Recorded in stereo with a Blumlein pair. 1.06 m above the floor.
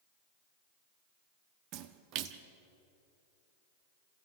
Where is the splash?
40° right, 1.0 m.